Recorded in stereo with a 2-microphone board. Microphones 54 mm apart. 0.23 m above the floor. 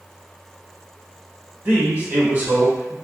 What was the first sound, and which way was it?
A man speaking, 35° right (ahead or behind).